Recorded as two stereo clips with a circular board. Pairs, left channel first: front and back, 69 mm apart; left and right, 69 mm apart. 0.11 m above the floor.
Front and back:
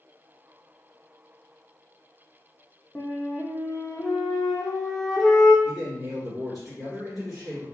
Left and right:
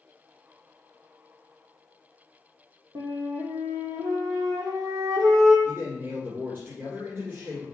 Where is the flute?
80° right, 1.2 m.